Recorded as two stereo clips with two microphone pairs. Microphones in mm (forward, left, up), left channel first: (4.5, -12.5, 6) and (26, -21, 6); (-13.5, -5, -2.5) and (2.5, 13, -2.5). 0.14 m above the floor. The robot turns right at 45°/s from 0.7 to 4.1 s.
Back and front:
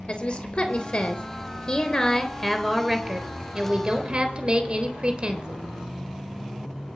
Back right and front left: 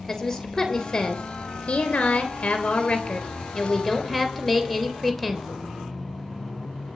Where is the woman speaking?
155° left, 3 m; by 5.6 s 55° right, 3 m.